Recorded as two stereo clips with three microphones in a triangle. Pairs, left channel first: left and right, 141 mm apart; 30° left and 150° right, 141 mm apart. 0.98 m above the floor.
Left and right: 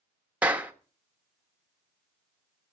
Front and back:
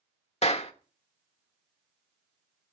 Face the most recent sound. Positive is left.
turn(degrees=-10)